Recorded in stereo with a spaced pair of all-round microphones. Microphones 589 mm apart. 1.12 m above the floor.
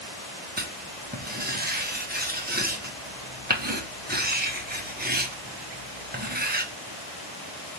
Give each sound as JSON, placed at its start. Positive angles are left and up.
{"t": 0.6, "sound": "writing", "side_deg": -15, "distance_m": 0.9}